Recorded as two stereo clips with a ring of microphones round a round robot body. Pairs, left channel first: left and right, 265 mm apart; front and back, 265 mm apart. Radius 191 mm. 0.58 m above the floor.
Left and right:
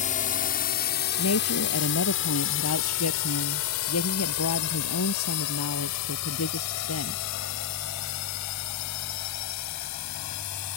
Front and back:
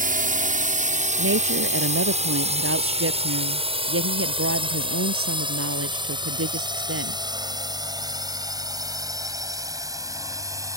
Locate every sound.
0.0 s a drone: 140° left; by 10.8 s 100° left
1.2 s a woman speaking: 145° left